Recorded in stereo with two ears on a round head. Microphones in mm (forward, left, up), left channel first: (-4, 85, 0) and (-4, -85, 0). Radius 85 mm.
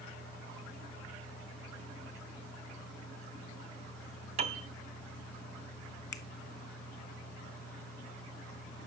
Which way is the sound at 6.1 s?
20° left (ahead or behind).